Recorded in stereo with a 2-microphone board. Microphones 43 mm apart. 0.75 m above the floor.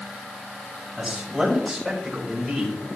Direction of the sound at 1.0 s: 10° right (ahead or behind).